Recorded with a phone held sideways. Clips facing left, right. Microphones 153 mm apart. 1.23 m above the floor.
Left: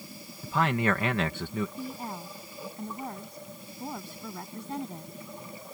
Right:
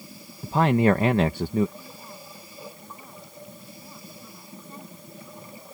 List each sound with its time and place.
0.4 s a man speaking: 35° right (ahead or behind)
1.8 s a woman speaking: 90° left